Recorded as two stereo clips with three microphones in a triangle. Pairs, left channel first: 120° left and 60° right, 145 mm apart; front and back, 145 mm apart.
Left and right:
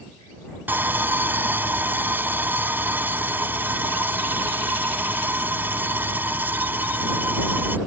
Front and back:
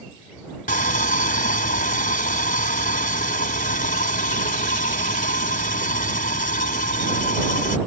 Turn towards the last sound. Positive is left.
turn(degrees=15)